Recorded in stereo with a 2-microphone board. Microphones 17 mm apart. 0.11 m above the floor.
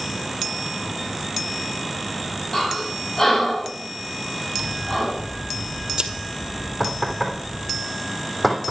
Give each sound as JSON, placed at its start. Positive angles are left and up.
{"t": 2.5, "sound": "breathing", "side_deg": 30, "distance_m": 8.0}
{"t": 4.6, "sound": "scissors", "side_deg": -65, "distance_m": 1.8}
{"t": 6.8, "sound": "knocking", "side_deg": 15, "distance_m": 3.5}